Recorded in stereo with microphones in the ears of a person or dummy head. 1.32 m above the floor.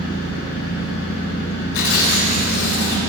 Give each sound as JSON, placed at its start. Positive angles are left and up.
{"t": 0.0, "sound": "an engine running", "side_deg": 65, "distance_m": 5.5}
{"t": 1.7, "sound": "tearing paper", "side_deg": 75, "distance_m": 4.5}